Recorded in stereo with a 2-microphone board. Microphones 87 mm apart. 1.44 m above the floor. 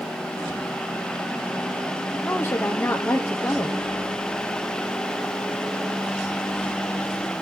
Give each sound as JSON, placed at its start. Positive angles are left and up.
{"t": 2.2, "sound": "a woman speaking", "side_deg": 30, "distance_m": 0.8}